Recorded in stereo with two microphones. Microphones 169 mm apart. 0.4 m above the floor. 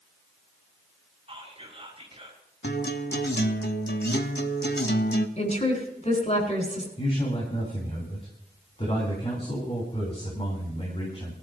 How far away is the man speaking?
About 3.5 m.